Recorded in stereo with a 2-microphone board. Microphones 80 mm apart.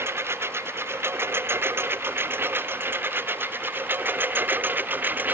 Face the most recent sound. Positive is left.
turn(degrees=-25)  # may be behind; listen again after turning